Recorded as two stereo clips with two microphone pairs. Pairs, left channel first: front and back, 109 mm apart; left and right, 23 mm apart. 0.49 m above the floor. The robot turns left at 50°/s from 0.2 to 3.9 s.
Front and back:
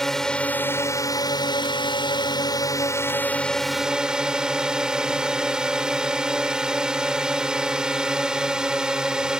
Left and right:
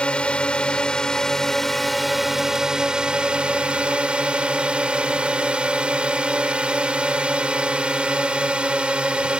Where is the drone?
85° left; by 9.4 s 100° right.